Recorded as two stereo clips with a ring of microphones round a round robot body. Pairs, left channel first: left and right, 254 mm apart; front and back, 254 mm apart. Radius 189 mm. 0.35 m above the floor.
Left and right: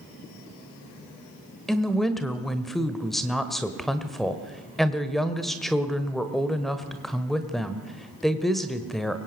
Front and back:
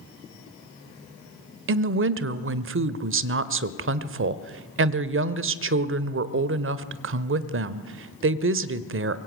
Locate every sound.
1.7 s a woman speaking: straight behind, 1.3 m